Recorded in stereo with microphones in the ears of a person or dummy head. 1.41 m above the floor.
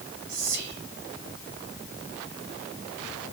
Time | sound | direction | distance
0.3 | whispering | 65° right (ahead or behind) | 1.0 m